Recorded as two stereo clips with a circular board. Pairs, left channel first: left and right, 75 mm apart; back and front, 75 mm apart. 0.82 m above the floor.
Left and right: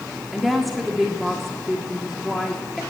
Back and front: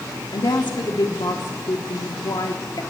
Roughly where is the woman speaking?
Behind.